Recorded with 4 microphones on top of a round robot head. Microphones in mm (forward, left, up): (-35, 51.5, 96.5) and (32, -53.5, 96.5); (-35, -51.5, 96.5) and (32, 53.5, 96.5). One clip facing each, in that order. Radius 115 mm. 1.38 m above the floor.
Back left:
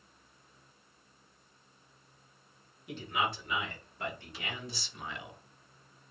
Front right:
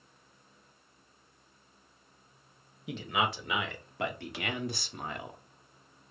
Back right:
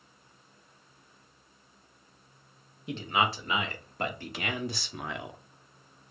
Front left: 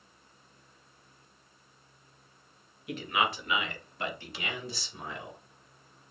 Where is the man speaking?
60° right, 1.8 m; by 5.4 s 110° right, 1.1 m.